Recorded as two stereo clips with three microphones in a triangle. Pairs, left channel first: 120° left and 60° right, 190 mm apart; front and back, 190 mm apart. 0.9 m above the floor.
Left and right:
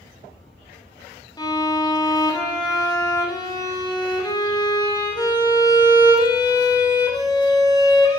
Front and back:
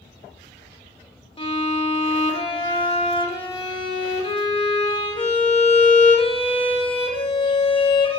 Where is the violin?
55° left, 1.4 m.